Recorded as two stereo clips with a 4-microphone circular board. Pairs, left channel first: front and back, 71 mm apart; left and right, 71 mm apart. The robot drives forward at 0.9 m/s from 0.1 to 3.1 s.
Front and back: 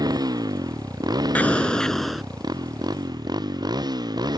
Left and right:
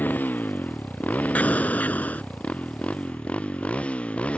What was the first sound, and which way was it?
A motorcycle, 155° left.